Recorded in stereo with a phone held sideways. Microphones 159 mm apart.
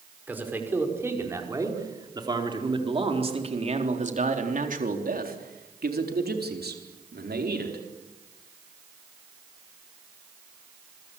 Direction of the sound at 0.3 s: 10° right (ahead or behind).